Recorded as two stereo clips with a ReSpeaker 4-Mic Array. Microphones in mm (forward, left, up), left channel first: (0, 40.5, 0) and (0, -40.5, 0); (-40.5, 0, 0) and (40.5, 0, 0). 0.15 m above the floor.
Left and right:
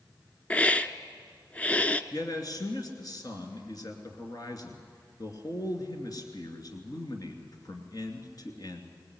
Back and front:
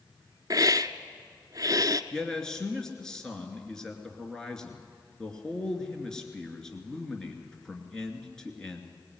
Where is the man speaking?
100° left, 2.5 m.